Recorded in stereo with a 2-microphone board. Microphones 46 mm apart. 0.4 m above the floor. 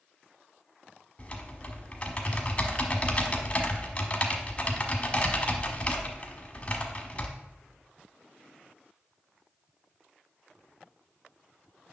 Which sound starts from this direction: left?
Typing on a keyboard, at 1.2 s.